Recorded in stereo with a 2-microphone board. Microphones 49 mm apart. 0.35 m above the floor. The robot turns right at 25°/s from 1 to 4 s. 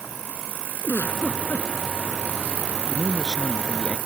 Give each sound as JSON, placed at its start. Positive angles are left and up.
{"t": 0.8, "sound": "a giggle", "side_deg": 50}
{"t": 2.9, "sound": "a man speaking", "side_deg": -5}